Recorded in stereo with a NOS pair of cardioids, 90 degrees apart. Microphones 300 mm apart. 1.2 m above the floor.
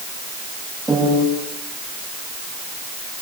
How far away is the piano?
About 9.5 m.